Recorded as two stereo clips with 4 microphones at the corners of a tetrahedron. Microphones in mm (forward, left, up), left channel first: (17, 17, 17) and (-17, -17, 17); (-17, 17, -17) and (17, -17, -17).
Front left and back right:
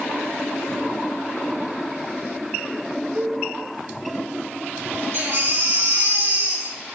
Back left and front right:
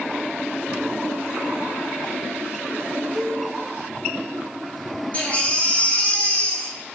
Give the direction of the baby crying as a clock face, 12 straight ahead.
6 o'clock.